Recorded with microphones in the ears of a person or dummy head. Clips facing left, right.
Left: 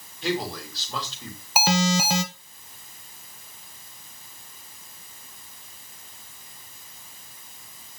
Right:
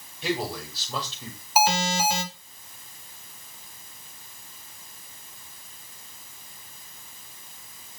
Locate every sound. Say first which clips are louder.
0.2 s a man speaking: left 1 dB; 5° right (ahead or behind), 5.5 m
1.6 s an alarm: left 1 dB; 55° left (ahead or behind), 1.8 m